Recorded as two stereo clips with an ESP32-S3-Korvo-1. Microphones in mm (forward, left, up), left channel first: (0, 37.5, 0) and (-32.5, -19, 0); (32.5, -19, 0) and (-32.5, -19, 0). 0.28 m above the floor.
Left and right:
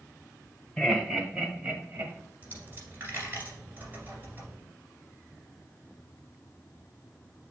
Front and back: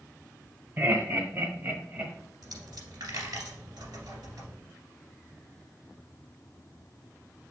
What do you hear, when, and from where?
0.8 s laughter: 145° left, 1.6 m; by 2.1 s 135° right, 1.4 m
2.4 s a dropped coin: 175° right, 2 m